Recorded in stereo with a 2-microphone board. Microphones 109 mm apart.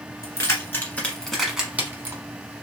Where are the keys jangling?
30° left (ahead or behind), 1.5 m; by 2.2 s 35° right (ahead or behind), 1.0 m.